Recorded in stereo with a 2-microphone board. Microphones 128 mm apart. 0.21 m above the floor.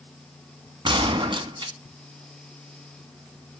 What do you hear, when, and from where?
0.8 s a gunshot: 40° right (ahead or behind), 1.0 m